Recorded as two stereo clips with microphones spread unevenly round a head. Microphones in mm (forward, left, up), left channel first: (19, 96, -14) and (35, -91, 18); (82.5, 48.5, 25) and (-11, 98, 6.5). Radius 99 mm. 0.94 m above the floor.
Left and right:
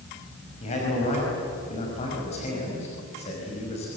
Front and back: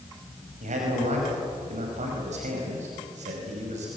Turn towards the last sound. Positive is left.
turn(degrees=155)